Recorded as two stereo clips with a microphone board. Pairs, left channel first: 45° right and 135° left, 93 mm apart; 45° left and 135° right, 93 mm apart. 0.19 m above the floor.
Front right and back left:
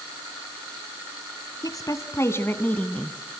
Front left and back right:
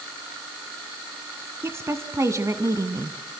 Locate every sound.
1.6 s a woman speaking: 80° right, 1.7 m; by 3.2 s 125° right, 1.3 m